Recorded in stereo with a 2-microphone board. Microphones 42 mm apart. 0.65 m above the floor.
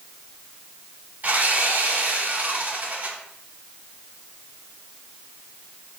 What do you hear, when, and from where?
1.2 s sawing: 40° right (ahead or behind), 3 m